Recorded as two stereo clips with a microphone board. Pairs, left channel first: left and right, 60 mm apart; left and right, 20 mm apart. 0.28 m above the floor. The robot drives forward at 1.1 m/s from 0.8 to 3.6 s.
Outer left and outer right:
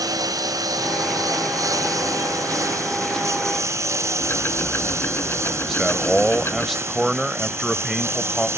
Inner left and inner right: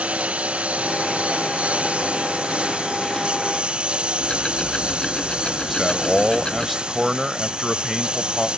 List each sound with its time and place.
0.0 s a lawn mower: 85° right; by 8.6 s 45° right (ahead or behind)
4.2 s ticking: 45° left (ahead or behind)
5.7 s a man speaking: centre (ahead or behind)